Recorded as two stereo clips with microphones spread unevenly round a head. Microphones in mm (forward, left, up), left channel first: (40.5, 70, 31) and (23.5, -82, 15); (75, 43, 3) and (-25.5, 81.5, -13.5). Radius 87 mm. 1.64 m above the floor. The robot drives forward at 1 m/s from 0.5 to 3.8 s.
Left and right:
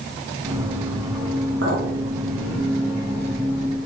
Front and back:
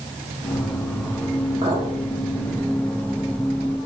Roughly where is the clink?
Behind right.